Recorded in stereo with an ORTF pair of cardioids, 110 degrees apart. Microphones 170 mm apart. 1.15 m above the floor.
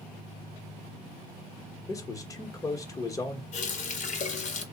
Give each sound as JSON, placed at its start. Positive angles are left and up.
{"t": 1.9, "sound": "a man speaking", "azimuth_deg": 20, "distance_m": 0.9}
{"t": 3.5, "sound": "a running tap", "azimuth_deg": 45, "distance_m": 0.8}